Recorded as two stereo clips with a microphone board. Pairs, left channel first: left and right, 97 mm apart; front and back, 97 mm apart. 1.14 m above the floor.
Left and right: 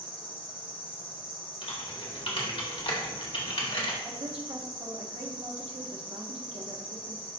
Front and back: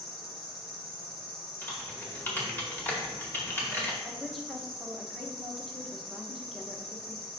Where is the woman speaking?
90° right, 1.2 m.